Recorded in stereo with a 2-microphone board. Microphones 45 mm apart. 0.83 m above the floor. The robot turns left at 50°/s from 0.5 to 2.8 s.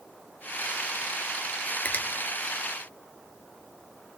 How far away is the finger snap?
About 0.9 m.